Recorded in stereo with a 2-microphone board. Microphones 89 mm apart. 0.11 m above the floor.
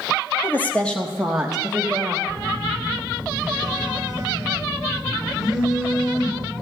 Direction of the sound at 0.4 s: 25° left (ahead or behind).